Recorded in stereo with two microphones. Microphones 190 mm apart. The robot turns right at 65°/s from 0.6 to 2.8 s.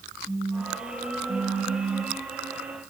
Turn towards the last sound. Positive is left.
turn(degrees=-50)